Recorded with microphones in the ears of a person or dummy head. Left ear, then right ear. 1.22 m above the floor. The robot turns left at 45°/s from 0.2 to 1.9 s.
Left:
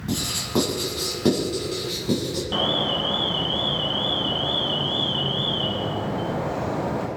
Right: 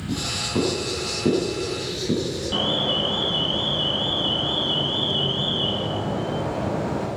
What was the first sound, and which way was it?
Writing, 55° left (ahead or behind).